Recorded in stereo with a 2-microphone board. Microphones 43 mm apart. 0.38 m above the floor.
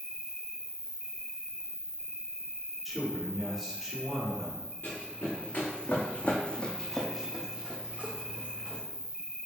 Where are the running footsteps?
60° left (ahead or behind), 2 m; by 8.8 s 50° right (ahead or behind), 1.6 m.